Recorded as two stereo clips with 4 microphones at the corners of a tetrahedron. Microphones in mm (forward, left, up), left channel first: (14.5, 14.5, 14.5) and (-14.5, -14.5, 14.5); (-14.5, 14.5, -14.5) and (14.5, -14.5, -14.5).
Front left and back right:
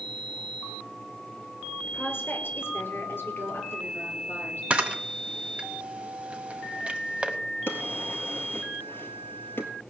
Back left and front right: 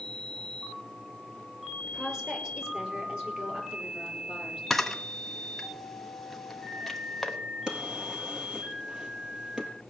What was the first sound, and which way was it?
A woman speaking, 25° left.